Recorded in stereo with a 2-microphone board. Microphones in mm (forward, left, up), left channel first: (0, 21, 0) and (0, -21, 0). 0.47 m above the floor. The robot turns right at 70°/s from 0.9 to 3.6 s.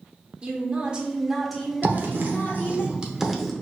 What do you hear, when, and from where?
0.4 s a woman speaking: 40° right, 1.1 m; by 2.8 s 95° left, 1.1 m
1.8 s writing: 45° right (ahead or behind), 0.7 m; by 3.5 s 5° left (ahead or behind), 0.7 m